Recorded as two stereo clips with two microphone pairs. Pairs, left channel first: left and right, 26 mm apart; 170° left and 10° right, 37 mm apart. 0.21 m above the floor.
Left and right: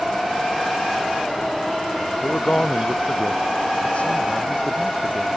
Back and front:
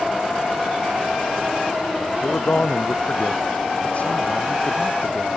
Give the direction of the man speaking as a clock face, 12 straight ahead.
8 o'clock.